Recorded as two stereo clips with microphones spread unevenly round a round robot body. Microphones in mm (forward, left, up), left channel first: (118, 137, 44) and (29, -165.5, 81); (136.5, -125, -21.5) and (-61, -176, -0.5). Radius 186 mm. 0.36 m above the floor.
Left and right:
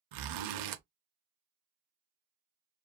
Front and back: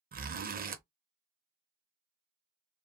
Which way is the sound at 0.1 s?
115° right.